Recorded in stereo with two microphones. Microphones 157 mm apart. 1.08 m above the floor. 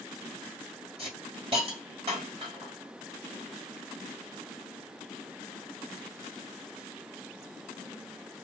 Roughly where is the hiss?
Right.